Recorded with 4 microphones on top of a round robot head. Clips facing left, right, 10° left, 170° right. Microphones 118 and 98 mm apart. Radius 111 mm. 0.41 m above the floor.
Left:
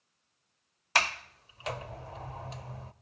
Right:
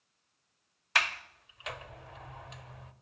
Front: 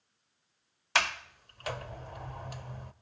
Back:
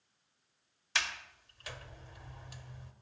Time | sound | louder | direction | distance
0.9 | a sliding door | left 3 dB, front 8 dB | 40° left | 0.8 m